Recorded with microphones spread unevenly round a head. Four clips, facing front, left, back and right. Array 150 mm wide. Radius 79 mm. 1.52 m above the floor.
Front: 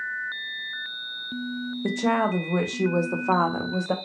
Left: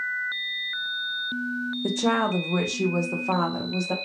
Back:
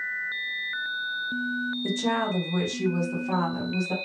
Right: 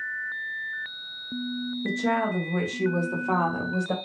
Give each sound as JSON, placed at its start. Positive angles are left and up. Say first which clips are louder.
{"t": 1.8, "sound": "a woman speaking", "louder": "left 2 dB, front 5 dB", "azimuth_deg": 50, "distance_m": 1.0}